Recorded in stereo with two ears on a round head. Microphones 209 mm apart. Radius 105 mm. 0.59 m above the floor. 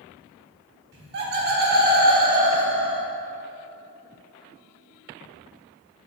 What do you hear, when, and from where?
0.9 s laughter: 45° right (ahead or behind), 1.7 m; by 3.1 s 20° right (ahead or behind), 0.8 m